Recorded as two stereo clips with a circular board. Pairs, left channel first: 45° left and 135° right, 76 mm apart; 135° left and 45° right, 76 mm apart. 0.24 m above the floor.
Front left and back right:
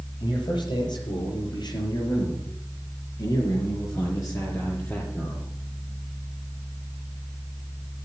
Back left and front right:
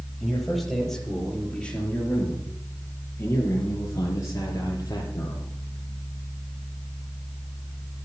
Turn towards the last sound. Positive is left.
turn(degrees=105)